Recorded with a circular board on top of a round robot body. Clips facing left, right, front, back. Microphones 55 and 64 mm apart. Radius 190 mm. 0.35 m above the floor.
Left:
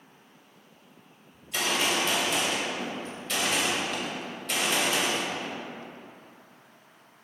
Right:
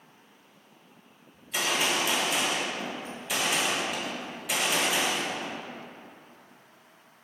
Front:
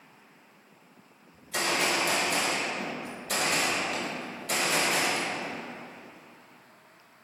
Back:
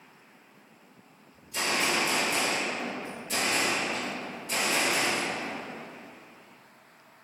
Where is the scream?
No scream in this recording.